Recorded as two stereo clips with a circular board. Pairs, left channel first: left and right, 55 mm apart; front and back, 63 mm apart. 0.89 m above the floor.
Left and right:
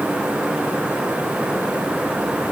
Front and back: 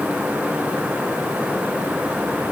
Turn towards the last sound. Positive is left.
No sound to turn to.